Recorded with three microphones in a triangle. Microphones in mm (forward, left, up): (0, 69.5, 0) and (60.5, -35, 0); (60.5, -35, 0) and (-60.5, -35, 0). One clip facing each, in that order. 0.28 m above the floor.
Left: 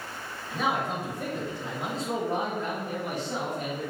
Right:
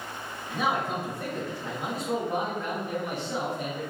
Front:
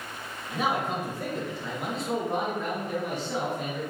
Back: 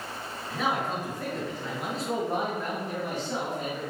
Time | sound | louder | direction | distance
0.5 | a man speaking | even, front 1 dB | straight ahead | 1.1 m